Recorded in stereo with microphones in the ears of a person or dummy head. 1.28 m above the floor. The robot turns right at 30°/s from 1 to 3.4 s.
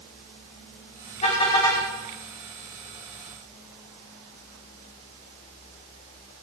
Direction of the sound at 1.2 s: 35° left (ahead or behind).